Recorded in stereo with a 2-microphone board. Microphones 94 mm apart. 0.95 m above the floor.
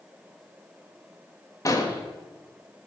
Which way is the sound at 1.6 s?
35° left (ahead or behind).